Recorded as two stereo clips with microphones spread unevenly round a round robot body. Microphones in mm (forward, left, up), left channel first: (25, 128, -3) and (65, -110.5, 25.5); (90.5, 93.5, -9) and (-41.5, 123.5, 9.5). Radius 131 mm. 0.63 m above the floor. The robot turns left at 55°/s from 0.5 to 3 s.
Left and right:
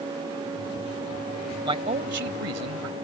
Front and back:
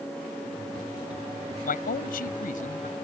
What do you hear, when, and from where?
1.6 s a man speaking: 10° right; by 2.9 s 80° right